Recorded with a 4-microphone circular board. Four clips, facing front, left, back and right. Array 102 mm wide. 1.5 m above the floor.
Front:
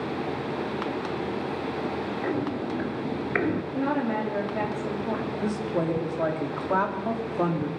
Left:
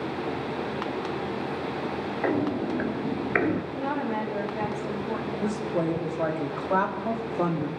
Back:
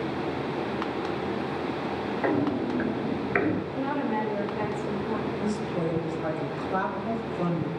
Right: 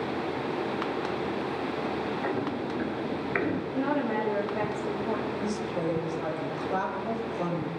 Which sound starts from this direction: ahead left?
A woman speaking, at 5.4 s.